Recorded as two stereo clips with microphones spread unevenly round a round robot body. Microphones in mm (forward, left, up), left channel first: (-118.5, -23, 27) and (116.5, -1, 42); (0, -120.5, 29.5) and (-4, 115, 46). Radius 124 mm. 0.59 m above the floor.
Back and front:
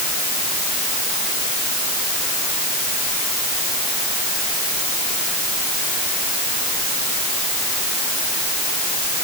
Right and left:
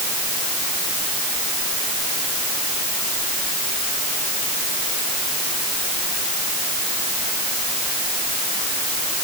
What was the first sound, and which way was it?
Only background noise.